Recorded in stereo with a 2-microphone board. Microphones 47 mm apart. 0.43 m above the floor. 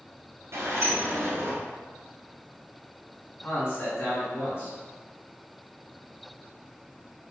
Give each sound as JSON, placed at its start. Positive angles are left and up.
{"t": 0.5, "sound": "a sliding door", "side_deg": -70, "distance_m": 1.1}
{"t": 3.4, "sound": "a man speaking", "side_deg": 65, "distance_m": 1.9}